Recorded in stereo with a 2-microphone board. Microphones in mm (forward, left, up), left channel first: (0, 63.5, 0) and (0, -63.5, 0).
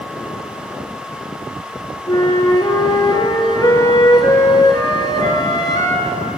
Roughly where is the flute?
Left.